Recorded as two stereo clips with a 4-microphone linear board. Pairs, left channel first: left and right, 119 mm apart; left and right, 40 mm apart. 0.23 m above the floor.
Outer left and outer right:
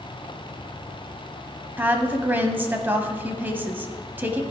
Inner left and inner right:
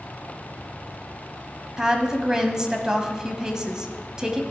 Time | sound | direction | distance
1.8 | a woman speaking | 15° right (ahead or behind) | 1.1 m